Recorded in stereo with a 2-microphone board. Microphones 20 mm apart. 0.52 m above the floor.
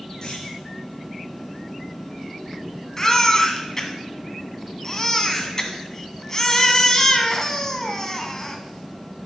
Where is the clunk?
35° left (ahead or behind), 4 m.